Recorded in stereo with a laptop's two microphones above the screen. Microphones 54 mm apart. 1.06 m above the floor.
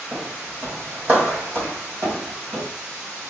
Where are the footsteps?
20° right (ahead or behind), 1.6 m; by 2.7 s 50° right (ahead or behind), 2.5 m.